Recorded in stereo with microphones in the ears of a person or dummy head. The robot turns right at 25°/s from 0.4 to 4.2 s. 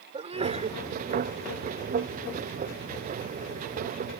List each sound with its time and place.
0.1 s a sneeze: 25° right (ahead or behind); by 0.8 s 35° right (ahead or behind)